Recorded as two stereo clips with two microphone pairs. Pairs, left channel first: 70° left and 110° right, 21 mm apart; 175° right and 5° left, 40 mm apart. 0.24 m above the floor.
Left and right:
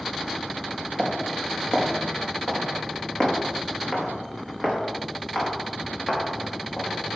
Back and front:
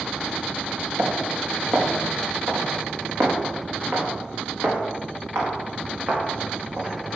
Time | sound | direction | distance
1.0 | footsteps | 20° left | 3 m